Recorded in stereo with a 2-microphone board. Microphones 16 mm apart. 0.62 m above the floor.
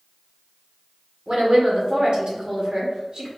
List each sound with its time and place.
1.3 s a woman speaking: 60° right (ahead or behind), 1.5 m